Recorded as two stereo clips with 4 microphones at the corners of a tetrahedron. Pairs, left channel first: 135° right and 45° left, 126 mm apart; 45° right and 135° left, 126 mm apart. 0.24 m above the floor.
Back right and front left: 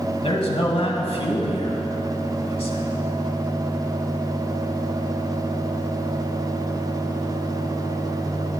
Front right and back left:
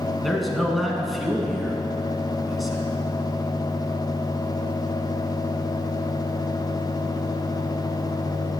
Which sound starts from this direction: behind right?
A man speaking, at 0.2 s.